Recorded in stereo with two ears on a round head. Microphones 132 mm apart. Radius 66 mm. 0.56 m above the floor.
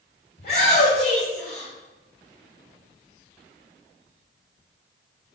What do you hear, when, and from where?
0.4 s a shout: 45° left (ahead or behind), 3 m